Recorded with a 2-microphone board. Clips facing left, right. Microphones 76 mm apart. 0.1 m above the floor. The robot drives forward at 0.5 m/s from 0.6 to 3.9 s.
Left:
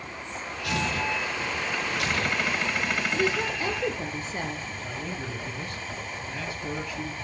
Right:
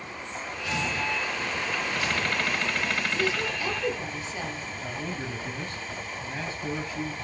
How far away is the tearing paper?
About 2.5 m.